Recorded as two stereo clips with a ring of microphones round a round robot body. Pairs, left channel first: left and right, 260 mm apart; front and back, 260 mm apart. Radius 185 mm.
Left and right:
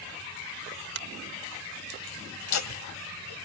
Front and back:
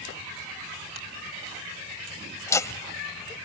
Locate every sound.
0.9 s a finger snap: 115° right, 1.5 m
2.4 s laughter: 80° left, 2 m